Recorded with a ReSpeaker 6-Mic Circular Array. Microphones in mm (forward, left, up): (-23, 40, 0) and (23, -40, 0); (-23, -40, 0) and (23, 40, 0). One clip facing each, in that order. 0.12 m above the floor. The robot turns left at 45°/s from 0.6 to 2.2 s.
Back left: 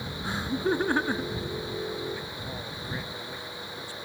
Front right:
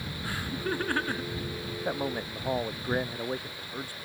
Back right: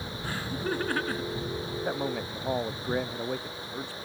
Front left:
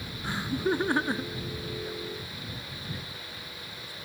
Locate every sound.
0.2 s laughter: 95° left; by 1.4 s 60° left
1.9 s a man speaking: 85° right; by 4.0 s 100° right